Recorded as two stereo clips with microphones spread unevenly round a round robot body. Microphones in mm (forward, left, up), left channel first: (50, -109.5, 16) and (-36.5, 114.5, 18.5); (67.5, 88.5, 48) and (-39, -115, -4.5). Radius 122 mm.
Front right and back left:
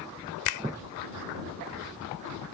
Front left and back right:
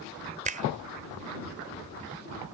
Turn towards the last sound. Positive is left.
turn(degrees=-60)